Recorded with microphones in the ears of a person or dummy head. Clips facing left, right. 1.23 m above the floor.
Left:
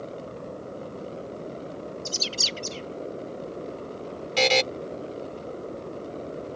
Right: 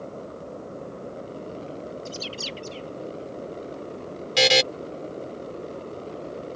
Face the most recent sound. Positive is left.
turn(degrees=-10)  # may be behind; listen again after turning